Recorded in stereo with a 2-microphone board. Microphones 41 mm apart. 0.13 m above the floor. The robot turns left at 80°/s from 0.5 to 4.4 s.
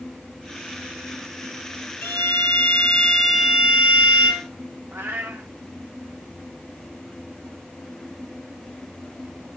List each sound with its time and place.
2.0 s a violin: 100° left, 2.5 m; by 4.5 s 90° right, 2.5 m
4.9 s a cat meowing: 65° right (ahead or behind), 1.7 m